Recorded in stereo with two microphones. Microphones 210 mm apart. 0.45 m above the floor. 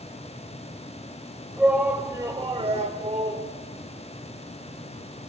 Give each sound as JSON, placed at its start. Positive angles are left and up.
{"t": 1.6, "sound": "a shout", "side_deg": -5, "distance_m": 2.0}